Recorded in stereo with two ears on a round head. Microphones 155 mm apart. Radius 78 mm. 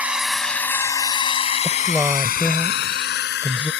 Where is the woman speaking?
5° right (ahead or behind).